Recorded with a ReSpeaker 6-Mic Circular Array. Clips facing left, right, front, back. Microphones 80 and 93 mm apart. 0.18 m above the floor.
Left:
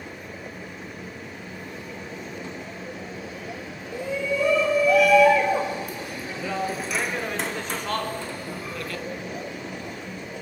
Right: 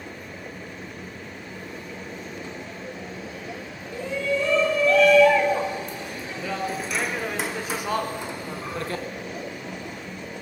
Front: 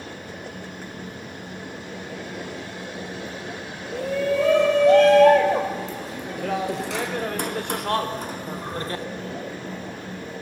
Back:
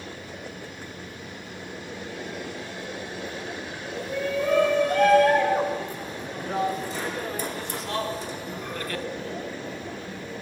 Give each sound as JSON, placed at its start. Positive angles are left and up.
{"t": 3.9, "sound": "a shout", "azimuth_deg": 15, "distance_m": 5.5}